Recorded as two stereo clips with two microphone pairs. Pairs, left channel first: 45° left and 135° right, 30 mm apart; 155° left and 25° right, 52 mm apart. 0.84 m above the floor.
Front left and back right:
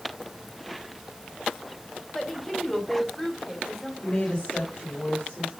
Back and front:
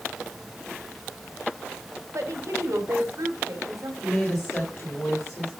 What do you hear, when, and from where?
2.1 s a woman speaking: 40° right, 2.5 m
4.0 s a woman speaking: 110° left, 3.5 m